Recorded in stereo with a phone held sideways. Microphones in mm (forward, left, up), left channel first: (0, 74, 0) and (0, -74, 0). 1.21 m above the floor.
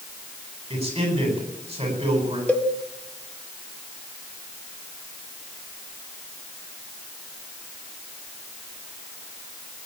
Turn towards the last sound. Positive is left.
turn(degrees=10)  # may be behind; listen again after turning